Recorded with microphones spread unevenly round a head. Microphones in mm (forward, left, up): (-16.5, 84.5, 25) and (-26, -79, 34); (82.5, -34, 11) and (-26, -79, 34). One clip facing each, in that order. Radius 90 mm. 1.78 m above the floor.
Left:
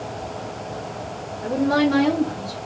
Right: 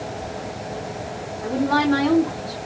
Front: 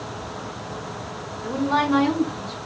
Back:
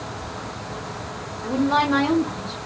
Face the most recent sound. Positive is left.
turn(degrees=130)